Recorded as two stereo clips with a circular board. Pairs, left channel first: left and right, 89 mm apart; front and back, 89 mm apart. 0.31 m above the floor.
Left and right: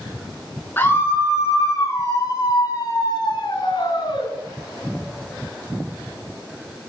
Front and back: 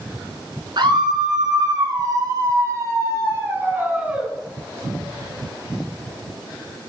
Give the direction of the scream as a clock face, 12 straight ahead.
7 o'clock.